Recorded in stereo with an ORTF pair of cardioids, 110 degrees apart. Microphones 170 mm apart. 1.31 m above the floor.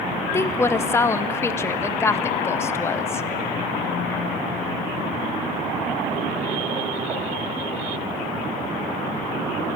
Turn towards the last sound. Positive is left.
turn(degrees=15)